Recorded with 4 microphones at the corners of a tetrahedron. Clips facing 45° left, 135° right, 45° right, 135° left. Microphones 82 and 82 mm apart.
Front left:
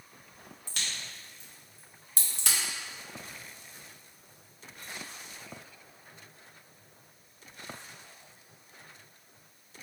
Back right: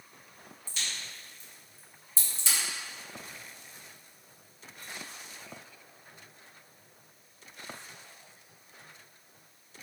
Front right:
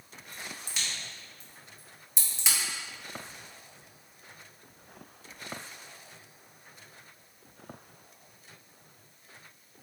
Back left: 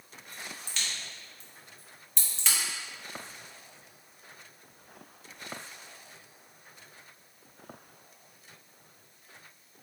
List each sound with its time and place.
0.7 s a crack: 35° left, 1.2 m